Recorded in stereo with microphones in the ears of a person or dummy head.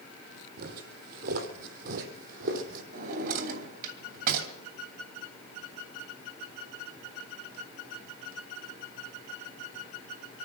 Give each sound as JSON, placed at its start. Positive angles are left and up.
{"t": 0.6, "sound": "footsteps", "side_deg": -55, "distance_m": 3.0}
{"t": 2.9, "sound": "a drawer", "side_deg": -55, "distance_m": 2.5}